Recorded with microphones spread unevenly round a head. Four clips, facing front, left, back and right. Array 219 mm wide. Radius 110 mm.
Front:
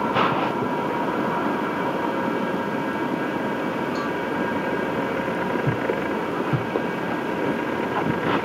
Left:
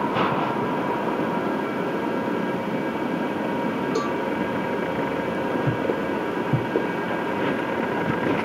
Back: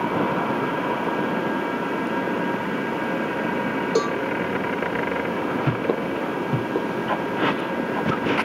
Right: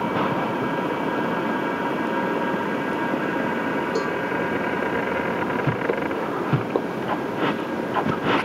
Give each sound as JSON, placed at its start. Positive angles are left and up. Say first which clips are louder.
{"t": 4.0, "sound": "a cowbell", "louder": "even, back 4 dB", "azimuth_deg": 180}